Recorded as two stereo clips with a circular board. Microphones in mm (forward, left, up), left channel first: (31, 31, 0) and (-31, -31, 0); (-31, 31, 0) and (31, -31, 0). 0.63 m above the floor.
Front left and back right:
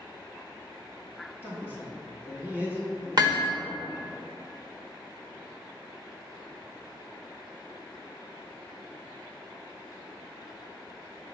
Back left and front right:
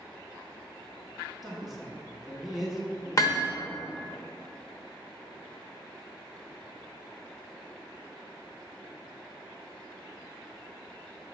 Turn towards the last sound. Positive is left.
turn(degrees=-175)